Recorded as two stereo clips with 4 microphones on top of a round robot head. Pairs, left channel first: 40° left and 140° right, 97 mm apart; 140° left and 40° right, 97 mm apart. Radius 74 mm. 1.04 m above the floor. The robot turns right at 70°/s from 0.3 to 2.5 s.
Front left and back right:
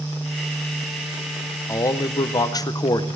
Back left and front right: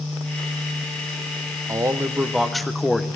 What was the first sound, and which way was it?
A man speaking, 5° right.